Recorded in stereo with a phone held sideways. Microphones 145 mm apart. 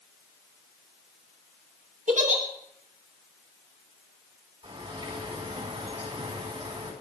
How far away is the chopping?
No chopping in this recording.